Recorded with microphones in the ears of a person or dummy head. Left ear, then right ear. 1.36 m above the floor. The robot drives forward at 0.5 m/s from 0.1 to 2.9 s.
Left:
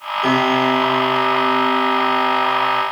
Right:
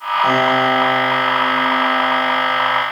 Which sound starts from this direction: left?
A piano, at 0.2 s.